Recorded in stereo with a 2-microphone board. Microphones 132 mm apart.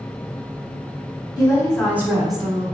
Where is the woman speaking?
30° left (ahead or behind), 1.1 m; by 2.6 s 45° right (ahead or behind), 1.4 m.